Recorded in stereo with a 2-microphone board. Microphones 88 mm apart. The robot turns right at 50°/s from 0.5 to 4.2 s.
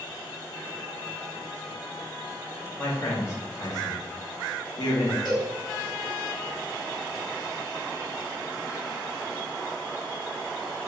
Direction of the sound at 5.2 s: 5° right (ahead or behind).